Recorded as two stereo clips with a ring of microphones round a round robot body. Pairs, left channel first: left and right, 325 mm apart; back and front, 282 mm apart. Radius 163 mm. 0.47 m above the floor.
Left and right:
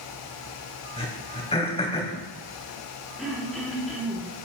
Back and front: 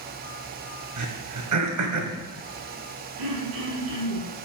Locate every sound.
1.0 s throat clearing: 15° left, 2.5 m
3.2 s throat clearing: straight ahead, 6 m